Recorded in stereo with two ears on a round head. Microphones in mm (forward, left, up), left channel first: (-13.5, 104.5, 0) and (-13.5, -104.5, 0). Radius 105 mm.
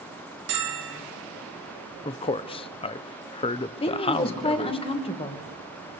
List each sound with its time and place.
0.5 s a bell: 45° right (ahead or behind), 2.5 m
2.0 s a man speaking: 25° left (ahead or behind), 0.7 m
3.8 s a woman speaking: 25° left (ahead or behind), 2 m